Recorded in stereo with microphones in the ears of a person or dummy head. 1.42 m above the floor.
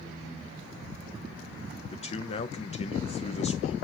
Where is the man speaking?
40° left (ahead or behind), 1.0 m.